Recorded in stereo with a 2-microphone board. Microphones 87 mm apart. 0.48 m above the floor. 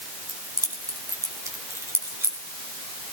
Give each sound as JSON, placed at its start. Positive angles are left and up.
{"t": 0.3, "sound": "keys jangling", "side_deg": -45, "distance_m": 3.0}